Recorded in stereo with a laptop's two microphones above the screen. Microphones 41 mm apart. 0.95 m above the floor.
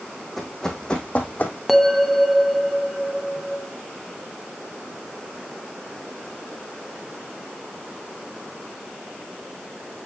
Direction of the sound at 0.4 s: 5° left (ahead or behind).